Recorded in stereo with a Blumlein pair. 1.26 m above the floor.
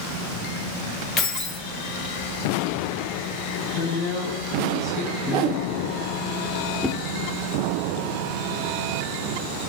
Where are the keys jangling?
20° left, 0.9 m.